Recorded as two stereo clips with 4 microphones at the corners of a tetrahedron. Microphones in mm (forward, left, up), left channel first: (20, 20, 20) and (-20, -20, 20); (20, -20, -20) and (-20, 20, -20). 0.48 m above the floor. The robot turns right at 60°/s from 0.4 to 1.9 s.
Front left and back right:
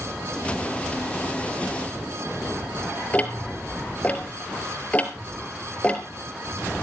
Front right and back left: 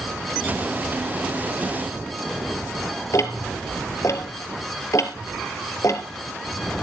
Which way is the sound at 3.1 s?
20° right.